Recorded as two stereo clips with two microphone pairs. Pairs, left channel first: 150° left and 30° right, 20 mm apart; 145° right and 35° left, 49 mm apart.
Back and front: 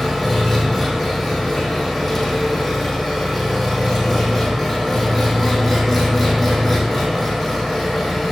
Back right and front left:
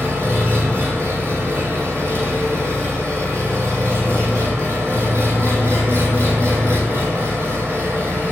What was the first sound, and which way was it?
An engine running, 60° left.